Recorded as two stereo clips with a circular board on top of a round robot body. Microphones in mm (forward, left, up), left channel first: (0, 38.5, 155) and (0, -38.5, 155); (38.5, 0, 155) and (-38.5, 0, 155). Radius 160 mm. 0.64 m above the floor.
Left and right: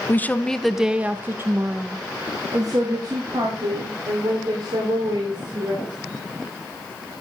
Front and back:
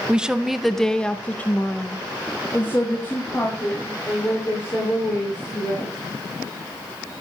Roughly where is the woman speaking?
Behind left.